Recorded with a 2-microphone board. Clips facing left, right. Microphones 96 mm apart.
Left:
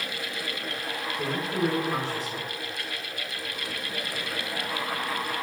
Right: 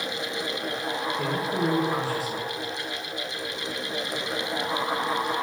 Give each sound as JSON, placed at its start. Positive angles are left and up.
{"t": 1.2, "sound": "a man speaking", "side_deg": -5, "distance_m": 1.8}